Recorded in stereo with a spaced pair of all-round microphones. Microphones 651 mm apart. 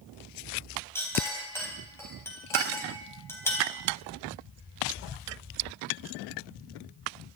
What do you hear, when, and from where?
0.9 s a clink: 5° left (ahead or behind), 3.5 m